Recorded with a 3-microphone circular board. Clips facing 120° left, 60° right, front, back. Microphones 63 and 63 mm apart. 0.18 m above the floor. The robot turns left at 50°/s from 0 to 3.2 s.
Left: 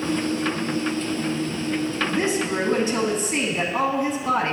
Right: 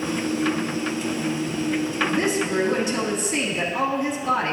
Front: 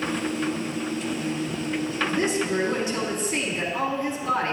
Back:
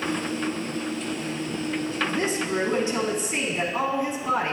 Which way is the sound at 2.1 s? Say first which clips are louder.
Even, front 3 dB; straight behind.